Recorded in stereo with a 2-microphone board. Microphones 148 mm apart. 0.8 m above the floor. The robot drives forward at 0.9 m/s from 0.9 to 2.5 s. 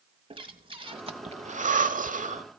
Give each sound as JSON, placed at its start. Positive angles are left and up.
{"t": 0.3, "sound": "breathing", "side_deg": -40, "distance_m": 1.3}